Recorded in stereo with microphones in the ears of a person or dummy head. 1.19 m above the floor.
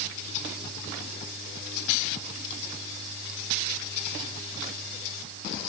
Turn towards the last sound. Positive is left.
No sound to turn to.